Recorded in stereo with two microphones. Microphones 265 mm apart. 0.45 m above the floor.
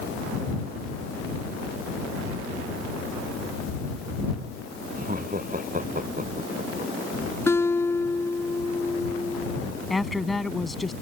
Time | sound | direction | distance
5.0 | laughter | 30° right (ahead or behind) | ?
7.5 | a guitar | 10° left (ahead or behind) | ?
9.9 | a woman speaking | centre (ahead or behind) | ?